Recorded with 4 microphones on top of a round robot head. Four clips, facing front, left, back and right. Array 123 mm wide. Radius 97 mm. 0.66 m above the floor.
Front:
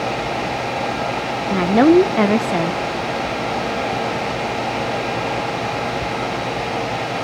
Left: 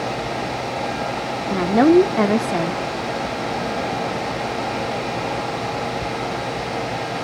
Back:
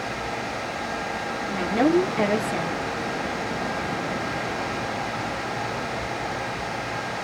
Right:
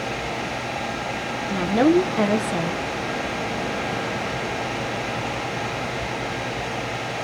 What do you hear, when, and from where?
1.5 s a woman speaking: 20° left, 0.8 m